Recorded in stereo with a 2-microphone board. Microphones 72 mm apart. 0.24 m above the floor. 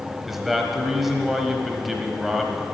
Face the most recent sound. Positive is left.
turn(degrees=0)  # may be behind; listen again after turning